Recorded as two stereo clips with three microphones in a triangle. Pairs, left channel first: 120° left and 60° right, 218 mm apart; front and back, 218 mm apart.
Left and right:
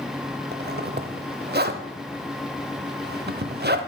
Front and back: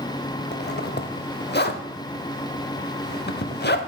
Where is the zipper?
30° right, 0.5 m.